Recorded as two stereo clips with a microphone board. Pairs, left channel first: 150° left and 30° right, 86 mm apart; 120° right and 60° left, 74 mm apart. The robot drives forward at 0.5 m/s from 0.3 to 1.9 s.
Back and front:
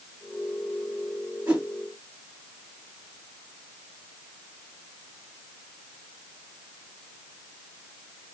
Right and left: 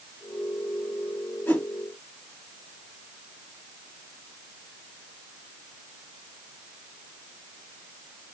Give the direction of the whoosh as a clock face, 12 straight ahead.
3 o'clock.